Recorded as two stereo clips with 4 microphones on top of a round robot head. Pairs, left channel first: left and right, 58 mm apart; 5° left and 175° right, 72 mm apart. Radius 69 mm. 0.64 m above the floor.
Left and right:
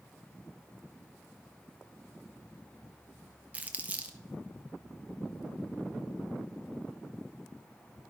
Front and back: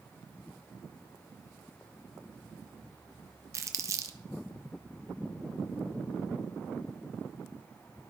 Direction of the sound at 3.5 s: 145° right.